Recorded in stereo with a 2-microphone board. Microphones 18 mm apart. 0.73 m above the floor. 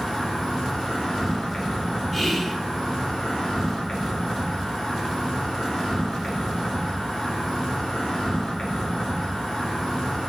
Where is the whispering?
5° left (ahead or behind), 1.1 m.